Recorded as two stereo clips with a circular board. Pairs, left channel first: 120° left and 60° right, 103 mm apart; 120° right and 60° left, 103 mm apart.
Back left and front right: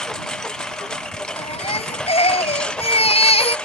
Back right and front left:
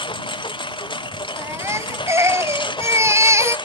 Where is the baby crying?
120° left.